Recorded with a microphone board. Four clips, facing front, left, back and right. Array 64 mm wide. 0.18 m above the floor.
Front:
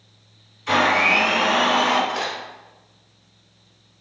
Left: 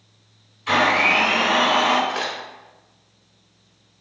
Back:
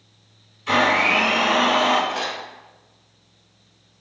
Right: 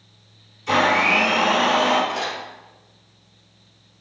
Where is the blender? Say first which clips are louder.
Even, even; 95° left, 1.7 m.